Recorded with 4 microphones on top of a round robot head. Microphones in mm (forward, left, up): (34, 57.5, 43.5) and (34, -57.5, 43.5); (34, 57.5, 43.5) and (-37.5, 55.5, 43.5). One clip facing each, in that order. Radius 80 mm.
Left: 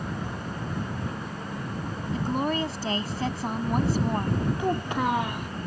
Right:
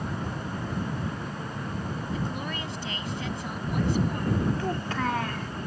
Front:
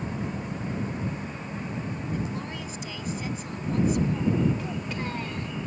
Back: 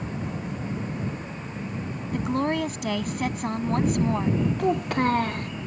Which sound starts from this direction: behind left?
A woman speaking, at 2.1 s.